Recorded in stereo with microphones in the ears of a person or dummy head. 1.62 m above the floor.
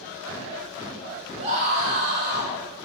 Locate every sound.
1.4 s a scream: 40° right (ahead or behind), 4.5 m